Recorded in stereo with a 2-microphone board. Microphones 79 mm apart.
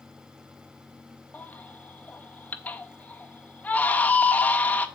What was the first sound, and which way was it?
A baby crying, 20° left (ahead or behind).